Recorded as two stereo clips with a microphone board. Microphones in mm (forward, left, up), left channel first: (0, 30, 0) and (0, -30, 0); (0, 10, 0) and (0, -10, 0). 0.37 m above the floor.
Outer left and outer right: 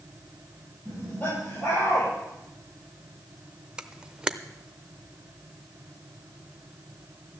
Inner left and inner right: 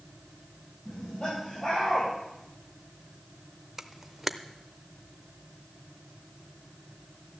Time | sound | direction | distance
0.8 | laughter | 30° left (ahead or behind) | 9 m
3.8 | a camera shutter | 10° right (ahead or behind) | 0.6 m